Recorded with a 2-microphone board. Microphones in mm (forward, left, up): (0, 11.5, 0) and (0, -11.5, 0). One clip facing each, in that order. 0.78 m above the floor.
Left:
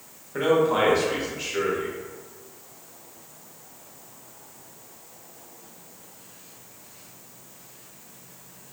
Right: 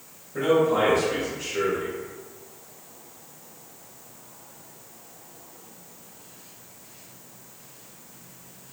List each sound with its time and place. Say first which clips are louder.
0.3 s a man speaking: even; 50° left (ahead or behind), 1.3 m